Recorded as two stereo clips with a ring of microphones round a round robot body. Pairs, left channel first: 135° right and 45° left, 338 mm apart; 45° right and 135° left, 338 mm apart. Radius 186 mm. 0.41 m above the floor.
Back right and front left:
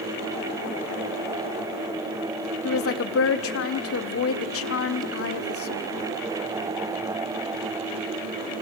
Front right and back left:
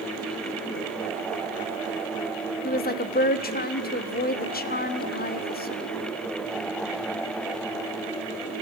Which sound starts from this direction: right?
A woman speaking, at 2.6 s.